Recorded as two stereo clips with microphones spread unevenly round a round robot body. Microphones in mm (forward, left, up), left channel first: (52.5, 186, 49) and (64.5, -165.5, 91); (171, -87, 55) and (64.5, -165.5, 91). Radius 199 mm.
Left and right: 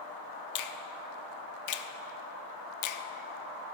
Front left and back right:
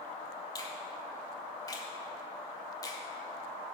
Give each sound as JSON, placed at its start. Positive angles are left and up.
{"t": 0.6, "sound": "a finger snap", "azimuth_deg": 85, "distance_m": 0.7}